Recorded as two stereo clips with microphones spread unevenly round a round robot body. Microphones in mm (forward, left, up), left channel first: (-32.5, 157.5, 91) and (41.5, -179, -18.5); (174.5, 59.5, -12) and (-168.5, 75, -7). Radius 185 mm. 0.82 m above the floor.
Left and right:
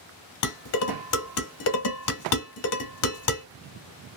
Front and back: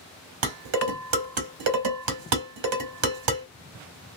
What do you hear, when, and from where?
0.4 s dishes clattering: 155° left, 1.4 m